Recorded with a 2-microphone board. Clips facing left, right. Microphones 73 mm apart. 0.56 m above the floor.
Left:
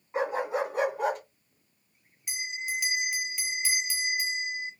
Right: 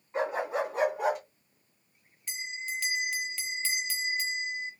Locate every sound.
0.1 s a dog barking: 10° left (ahead or behind), 2.5 m; by 1.2 s 5° right (ahead or behind), 2 m
2.3 s a bell: 10° left (ahead or behind), 1.0 m